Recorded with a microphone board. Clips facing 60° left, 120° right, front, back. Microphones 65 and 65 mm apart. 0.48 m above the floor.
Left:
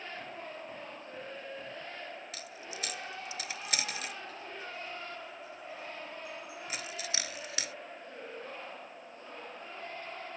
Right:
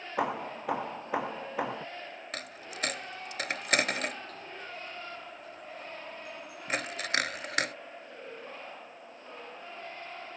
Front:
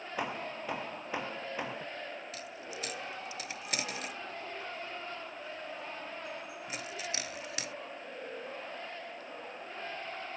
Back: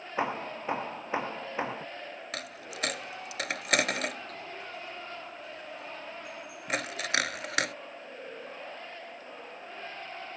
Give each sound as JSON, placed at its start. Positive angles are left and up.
{"t": 0.2, "sound": "hammering", "azimuth_deg": -115}
{"t": 2.3, "sound": "a dropped coin", "azimuth_deg": -155}